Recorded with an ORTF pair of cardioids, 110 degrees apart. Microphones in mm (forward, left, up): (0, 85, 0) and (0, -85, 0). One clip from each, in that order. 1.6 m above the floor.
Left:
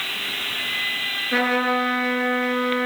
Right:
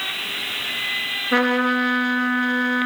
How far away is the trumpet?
About 3.5 m.